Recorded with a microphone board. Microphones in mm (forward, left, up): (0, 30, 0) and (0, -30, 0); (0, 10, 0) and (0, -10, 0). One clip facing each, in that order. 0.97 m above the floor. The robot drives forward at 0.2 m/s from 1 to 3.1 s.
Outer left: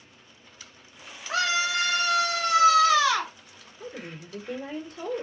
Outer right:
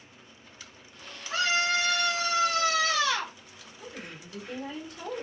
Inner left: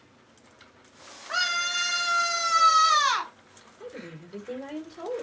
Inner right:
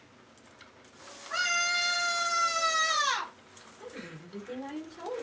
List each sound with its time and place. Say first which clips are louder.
1.3 s a scream: outer left 1 dB, inner left 2 dB; 80° left, 1.7 m; by 3.3 s 70° left (ahead or behind), 1.8 m
3.8 s a woman speaking: outer left 4 dB, inner left 3 dB; 45° left (ahead or behind), 2.5 m